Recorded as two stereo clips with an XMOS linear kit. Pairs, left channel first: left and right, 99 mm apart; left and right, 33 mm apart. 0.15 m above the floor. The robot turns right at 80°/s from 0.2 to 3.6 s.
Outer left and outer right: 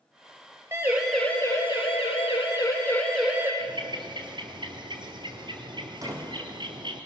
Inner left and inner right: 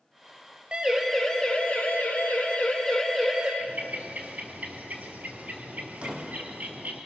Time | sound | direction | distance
0.7 | a siren | 25° right (ahead or behind) | 5 m
3.6 | a bird | 50° right (ahead or behind) | 2.5 m
6.0 | a door slam | 35° right (ahead or behind) | 4.5 m